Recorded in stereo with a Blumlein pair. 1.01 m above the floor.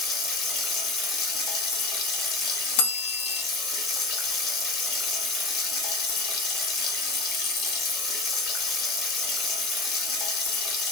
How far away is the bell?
About 0.6 m.